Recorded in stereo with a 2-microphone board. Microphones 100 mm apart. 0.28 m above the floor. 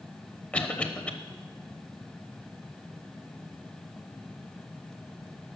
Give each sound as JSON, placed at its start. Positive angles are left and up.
{"t": 0.5, "sound": "a cough", "side_deg": 10, "distance_m": 0.9}